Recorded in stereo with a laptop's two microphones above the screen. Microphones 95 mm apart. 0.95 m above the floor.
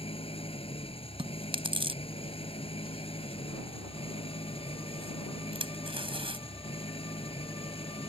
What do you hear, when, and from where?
0.0 s an engine running: 85° left
1.2 s chewing: 70° right (ahead or behind)